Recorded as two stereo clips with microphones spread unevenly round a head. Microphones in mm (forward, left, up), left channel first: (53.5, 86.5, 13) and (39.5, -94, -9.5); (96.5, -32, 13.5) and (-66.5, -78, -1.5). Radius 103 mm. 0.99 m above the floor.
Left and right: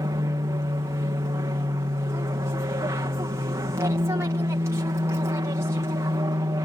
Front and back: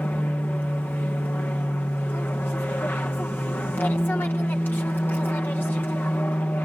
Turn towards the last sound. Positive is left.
turn(degrees=-60)